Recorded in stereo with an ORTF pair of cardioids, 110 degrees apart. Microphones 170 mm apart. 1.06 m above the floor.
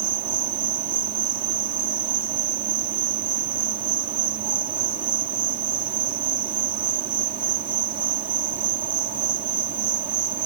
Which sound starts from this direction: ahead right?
An insect, at 0.0 s.